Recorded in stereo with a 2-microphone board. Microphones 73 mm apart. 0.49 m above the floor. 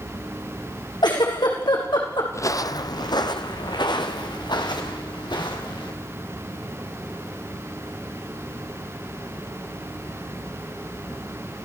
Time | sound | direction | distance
1.0 | a giggle | 85° left | 5.5 m
2.3 | footsteps | 40° left (ahead or behind) | 0.9 m